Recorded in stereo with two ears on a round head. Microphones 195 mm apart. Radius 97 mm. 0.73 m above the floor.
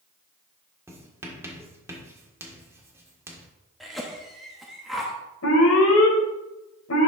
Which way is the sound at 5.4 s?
70° left (ahead or behind).